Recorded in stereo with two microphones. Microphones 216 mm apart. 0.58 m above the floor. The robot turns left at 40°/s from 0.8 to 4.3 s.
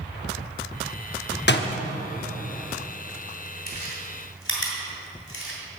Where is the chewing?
45° left (ahead or behind), 2.5 m; by 5.6 s 70° left (ahead or behind), 2.5 m.